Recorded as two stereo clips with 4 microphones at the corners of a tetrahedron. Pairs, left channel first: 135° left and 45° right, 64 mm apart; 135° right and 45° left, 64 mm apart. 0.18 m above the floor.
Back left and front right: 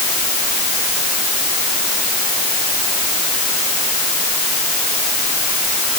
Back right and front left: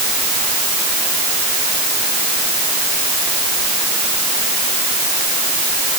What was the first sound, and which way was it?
Only background noise.